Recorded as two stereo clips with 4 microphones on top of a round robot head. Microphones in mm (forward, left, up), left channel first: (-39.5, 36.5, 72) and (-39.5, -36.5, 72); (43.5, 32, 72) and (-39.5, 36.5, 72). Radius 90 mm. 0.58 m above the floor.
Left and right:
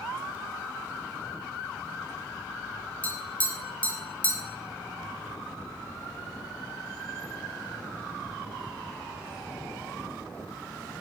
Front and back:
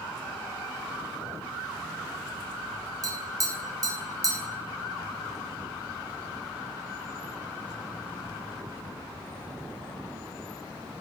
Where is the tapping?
150° left, 1.4 m.